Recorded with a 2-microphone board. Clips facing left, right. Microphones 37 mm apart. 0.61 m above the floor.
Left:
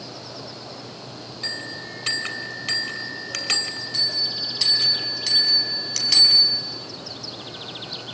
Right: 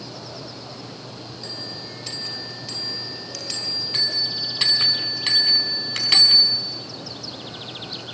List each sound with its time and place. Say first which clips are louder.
1.4 s a bell: left 5 dB; 65° left (ahead or behind), 2 m
3.9 s a bell: right 1 dB; 35° right (ahead or behind), 4.5 m